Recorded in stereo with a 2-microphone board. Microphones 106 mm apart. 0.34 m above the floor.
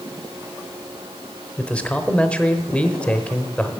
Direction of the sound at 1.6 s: 10° left (ahead or behind).